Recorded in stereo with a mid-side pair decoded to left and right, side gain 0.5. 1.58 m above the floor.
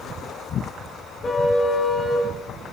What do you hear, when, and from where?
1.2 s a car horn: 25° left, 10 m; by 2.3 s 20° left, 9 m